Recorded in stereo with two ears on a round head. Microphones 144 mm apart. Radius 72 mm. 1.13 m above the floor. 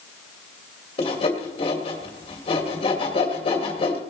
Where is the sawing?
40° left (ahead or behind), 2.5 m.